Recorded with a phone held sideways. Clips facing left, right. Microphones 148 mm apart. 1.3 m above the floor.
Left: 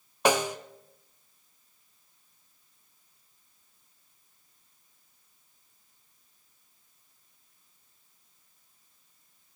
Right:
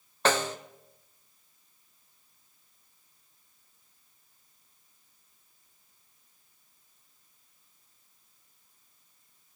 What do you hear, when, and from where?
0.2 s a snare drum: 10° left (ahead or behind), 0.7 m